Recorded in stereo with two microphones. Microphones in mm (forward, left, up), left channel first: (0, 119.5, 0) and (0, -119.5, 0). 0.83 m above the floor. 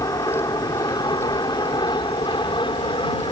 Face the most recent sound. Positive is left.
turn(degrees=20)  # may be behind; listen again after turning